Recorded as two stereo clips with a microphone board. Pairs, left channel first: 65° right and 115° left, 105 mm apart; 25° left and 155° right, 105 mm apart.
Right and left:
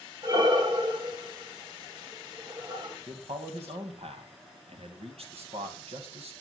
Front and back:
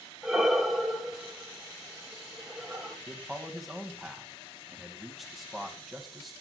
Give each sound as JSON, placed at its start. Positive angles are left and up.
{"t": 0.2, "sound": "breathing", "azimuth_deg": 115, "distance_m": 1.7}
{"t": 3.1, "sound": "a man speaking", "azimuth_deg": 115, "distance_m": 2.5}